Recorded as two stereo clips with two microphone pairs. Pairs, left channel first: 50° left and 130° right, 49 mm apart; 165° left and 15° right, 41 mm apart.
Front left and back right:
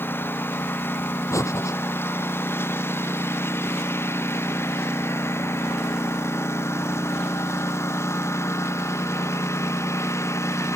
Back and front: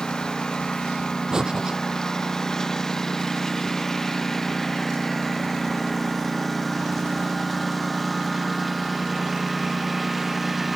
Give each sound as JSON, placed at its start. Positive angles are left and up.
{"t": 0.0, "sound": "a lawn mower", "azimuth_deg": 95}
{"t": 1.3, "sound": "breathing", "azimuth_deg": 60}